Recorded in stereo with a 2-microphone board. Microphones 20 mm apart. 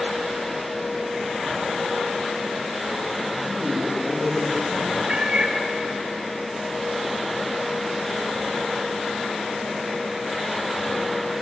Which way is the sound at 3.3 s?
15° right (ahead or behind).